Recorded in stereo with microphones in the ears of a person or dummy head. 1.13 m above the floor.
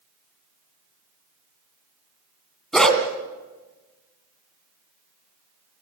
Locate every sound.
2.7 s a dog barking: centre (ahead or behind), 2.5 m